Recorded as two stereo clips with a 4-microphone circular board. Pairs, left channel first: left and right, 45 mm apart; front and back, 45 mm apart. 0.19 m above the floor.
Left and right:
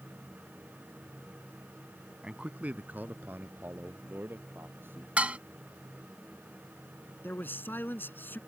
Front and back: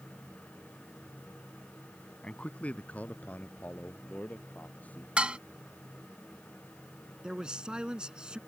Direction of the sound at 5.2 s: 130° right.